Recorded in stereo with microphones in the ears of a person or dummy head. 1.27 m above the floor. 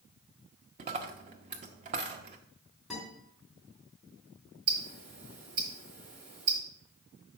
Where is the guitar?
5° left (ahead or behind), 3.5 m.